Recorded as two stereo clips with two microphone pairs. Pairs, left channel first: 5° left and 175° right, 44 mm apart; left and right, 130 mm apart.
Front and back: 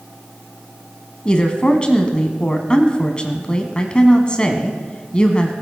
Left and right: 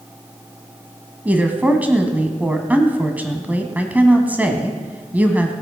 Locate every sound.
1.2 s a woman speaking: 30° right, 1.3 m